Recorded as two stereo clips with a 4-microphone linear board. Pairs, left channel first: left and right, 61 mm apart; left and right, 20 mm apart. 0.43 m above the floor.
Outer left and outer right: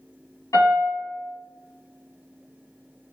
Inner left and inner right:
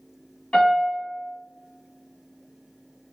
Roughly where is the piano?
Left.